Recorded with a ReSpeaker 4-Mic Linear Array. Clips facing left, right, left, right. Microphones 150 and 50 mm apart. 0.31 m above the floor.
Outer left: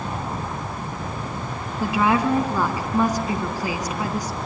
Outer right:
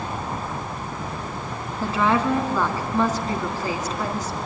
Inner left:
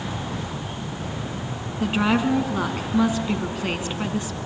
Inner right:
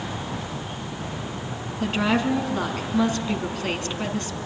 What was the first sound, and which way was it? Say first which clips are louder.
A woman speaking: outer left 1 dB, inner left 2 dB; 10° left (ahead or behind).